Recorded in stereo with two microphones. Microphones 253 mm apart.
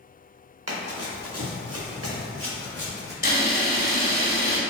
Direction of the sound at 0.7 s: 80° right.